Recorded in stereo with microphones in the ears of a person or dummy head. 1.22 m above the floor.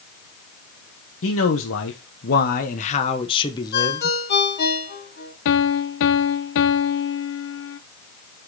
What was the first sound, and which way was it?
A man speaking, 60° left (ahead or behind).